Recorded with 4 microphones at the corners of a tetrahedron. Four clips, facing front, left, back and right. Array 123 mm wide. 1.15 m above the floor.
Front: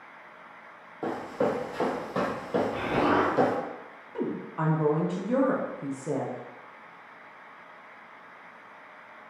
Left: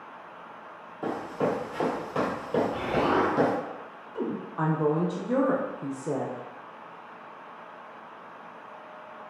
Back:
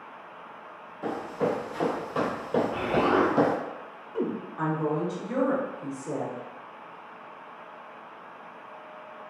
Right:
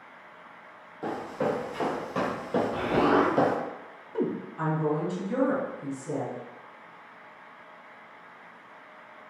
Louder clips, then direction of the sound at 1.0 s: Left 1 dB, even; 20° left.